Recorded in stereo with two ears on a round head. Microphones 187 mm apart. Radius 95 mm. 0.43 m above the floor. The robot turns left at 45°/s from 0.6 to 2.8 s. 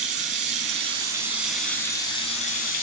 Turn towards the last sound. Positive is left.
turn(degrees=120)